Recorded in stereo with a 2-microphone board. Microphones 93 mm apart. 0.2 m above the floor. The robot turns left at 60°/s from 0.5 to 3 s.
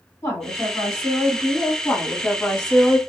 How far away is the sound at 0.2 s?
About 1.7 m.